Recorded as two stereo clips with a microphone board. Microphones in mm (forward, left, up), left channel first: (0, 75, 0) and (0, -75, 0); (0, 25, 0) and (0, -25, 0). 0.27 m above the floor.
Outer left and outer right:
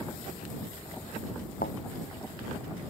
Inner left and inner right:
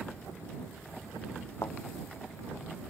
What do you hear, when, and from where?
1.6 s a thud: 80° left